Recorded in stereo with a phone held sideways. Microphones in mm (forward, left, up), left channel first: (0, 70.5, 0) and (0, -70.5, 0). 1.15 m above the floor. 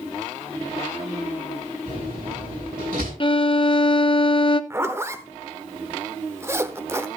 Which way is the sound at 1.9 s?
80° right.